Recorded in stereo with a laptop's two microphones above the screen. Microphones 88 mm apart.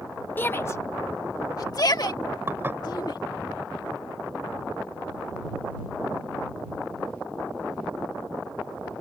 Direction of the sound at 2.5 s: 25° right (ahead or behind).